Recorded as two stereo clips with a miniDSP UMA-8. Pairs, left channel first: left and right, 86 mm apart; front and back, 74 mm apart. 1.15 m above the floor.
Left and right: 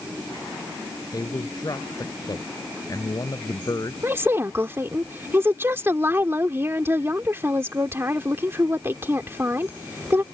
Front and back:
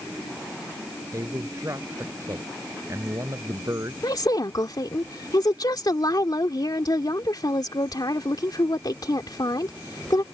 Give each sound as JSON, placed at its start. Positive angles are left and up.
{"t": 1.1, "sound": "a man speaking", "azimuth_deg": 135}
{"t": 4.0, "sound": "a woman speaking", "azimuth_deg": -30}